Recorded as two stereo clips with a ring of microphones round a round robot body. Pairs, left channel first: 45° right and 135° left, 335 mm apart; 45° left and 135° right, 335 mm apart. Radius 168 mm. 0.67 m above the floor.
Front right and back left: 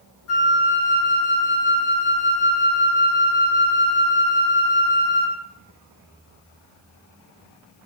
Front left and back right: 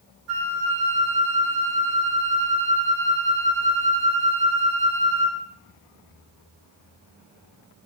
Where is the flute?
95° right, 5 m.